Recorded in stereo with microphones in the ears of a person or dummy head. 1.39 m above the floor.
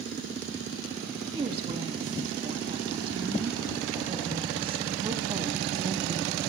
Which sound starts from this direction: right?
A woman speaking, at 1.3 s.